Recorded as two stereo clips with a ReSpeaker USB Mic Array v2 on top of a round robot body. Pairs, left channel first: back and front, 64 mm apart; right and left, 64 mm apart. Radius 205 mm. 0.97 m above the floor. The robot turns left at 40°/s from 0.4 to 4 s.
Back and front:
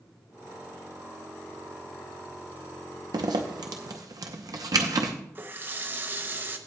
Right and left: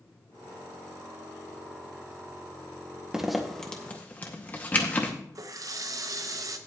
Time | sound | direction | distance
3.1 | a zipper | 10° left | 0.7 m
5.3 | a running tap | 55° left | 0.7 m